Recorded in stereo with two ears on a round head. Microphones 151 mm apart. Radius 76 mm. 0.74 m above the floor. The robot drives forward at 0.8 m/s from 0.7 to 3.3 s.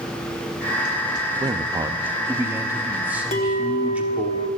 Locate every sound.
1.4 s a man speaking: 25° right (ahead or behind), 0.7 m; by 4.3 s 10° right (ahead or behind), 1.7 m
3.3 s a clink: 40° left (ahead or behind), 1.4 m